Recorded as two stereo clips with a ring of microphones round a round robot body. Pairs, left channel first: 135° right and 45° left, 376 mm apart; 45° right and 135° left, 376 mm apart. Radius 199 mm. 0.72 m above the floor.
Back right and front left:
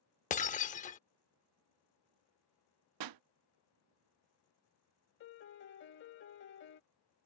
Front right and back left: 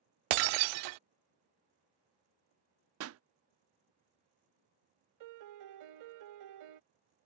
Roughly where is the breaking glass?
Behind left.